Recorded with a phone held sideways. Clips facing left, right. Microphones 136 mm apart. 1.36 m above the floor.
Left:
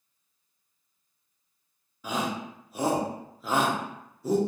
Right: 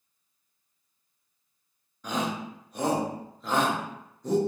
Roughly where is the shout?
Centre.